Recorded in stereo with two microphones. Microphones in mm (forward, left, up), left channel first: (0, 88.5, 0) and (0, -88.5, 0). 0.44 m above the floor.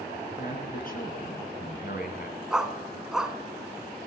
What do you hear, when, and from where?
0.4 s a man speaking: 55° left (ahead or behind), 6.5 m; by 2.4 s 65° left (ahead or behind), 4 m
2.5 s a dog barking: 5° right (ahead or behind), 1.4 m